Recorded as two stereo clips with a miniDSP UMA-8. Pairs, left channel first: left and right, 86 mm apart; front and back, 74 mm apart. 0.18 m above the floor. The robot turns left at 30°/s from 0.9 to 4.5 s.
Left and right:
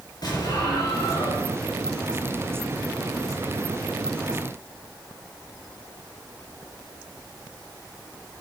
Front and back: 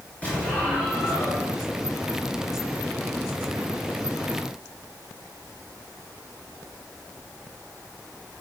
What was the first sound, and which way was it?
An explosion, 65° left.